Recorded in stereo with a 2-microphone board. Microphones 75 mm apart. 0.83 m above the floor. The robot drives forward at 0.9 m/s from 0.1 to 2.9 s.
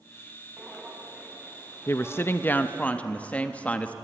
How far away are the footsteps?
About 4 m.